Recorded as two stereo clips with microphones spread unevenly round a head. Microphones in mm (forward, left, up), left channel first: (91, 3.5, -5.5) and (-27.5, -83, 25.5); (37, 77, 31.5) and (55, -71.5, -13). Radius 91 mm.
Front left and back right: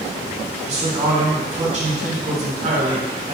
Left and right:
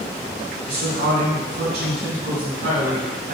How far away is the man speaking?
About 1.8 m.